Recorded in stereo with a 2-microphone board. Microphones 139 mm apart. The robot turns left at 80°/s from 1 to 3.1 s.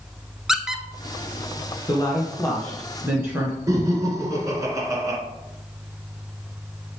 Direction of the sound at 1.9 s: 65° left.